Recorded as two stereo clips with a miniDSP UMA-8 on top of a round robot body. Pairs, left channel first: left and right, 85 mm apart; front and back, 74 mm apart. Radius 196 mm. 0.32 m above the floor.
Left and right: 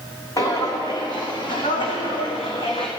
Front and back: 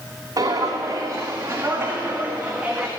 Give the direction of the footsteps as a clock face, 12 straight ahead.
7 o'clock.